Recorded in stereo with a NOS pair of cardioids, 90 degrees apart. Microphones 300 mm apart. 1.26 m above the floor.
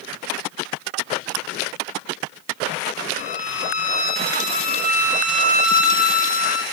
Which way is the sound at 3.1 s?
30° left.